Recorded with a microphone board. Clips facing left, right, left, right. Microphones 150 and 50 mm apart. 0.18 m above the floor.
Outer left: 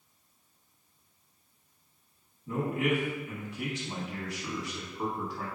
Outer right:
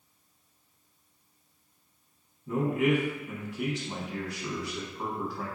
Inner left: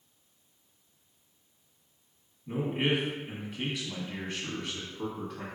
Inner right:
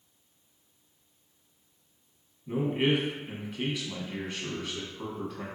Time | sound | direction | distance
2.5 | a man speaking | centre (ahead or behind) | 1.0 m